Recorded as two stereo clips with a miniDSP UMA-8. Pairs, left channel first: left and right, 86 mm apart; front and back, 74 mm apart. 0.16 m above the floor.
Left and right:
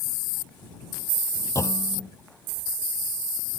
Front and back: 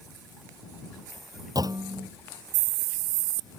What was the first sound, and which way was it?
A clunk, 145° left.